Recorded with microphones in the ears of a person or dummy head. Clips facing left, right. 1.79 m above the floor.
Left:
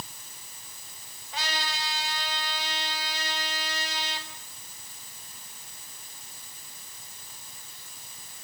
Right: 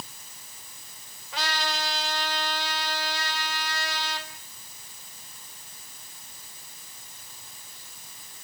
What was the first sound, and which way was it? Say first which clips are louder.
A trumpet: right 4 dB; 65° right (ahead or behind).